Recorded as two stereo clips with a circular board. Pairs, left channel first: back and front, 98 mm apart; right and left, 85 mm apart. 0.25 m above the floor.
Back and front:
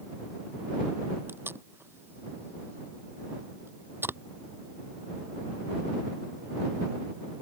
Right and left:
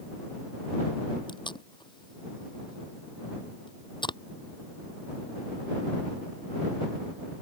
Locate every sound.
1.3 s tape being pulled: 65° right